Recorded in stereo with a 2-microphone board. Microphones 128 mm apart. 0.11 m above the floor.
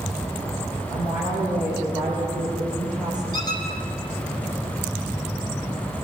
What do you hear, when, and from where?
0.9 s a woman speaking: 15° right (ahead or behind), 8 m; by 3.2 s 5° right (ahead or behind), 6.5 m
3.3 s a squeak: 30° left (ahead or behind), 4 m